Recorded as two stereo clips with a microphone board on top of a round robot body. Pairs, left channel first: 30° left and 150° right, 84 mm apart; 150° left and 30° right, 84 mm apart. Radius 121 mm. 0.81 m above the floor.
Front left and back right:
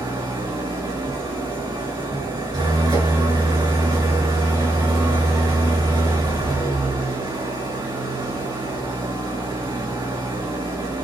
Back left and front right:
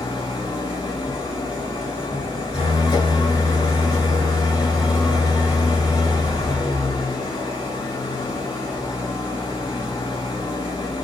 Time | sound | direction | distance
0.0 | an engine running | 175° left | 5.5 m